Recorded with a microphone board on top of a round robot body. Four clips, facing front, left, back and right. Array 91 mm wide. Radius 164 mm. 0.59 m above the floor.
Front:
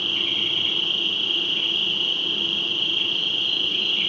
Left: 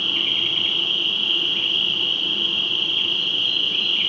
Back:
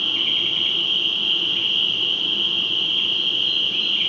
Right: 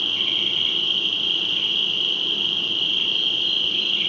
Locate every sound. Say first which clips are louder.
0.0 s an insect: left 2 dB, back 1 dB; 105° left, 1.7 m